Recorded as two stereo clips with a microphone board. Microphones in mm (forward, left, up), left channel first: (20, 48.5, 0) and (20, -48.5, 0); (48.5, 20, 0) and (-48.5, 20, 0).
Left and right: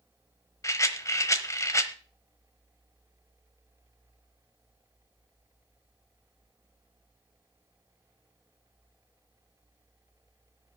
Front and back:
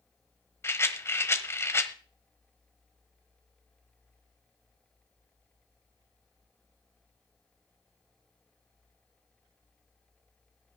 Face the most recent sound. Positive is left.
turn(degrees=50)